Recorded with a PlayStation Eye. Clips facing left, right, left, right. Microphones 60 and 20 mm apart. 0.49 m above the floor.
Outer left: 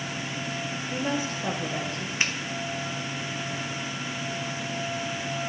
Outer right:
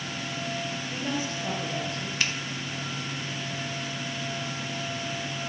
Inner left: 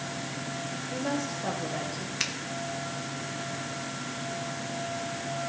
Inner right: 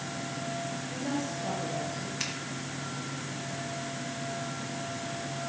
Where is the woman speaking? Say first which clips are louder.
Outer left 4 dB, inner left 3 dB; 40° left (ahead or behind), 2.5 m.